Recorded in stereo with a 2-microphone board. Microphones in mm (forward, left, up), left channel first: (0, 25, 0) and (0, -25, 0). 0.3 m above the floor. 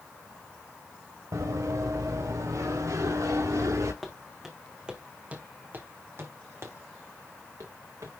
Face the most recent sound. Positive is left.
turn(degrees=-80)